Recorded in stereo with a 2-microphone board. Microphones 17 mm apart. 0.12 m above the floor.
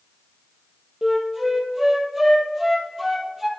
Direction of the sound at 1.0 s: 20° right (ahead or behind).